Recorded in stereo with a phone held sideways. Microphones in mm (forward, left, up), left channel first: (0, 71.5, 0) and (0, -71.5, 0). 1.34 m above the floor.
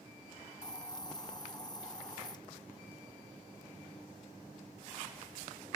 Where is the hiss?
30° left (ahead or behind), 0.5 m.